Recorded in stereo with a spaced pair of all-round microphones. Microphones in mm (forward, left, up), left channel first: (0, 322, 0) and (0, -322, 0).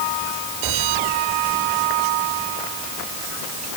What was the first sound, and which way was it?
Only background noise.